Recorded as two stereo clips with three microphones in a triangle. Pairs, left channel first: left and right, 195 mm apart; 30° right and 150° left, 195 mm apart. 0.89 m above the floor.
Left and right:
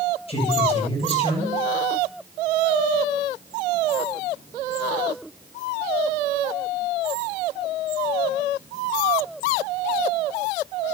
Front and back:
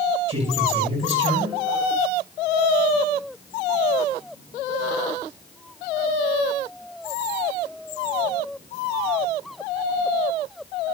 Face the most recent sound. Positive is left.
turn(degrees=150)